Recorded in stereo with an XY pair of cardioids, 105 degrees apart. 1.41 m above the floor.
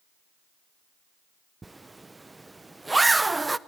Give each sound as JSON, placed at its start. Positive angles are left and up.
{"t": 1.6, "sound": "a zipper", "azimuth_deg": -15, "distance_m": 0.7}